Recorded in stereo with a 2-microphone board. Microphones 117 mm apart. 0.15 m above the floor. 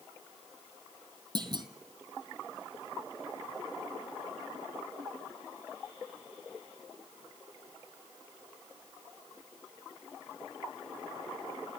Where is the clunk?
40° right (ahead or behind), 1.4 m.